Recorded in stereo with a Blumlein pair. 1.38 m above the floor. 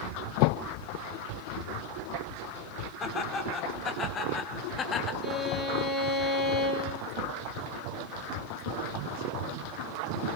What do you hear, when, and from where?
3.0 s laughter: 25° left, 4.5 m; by 5.1 s 20° left, 2.5 m
5.2 s a violin: 15° left, 6 m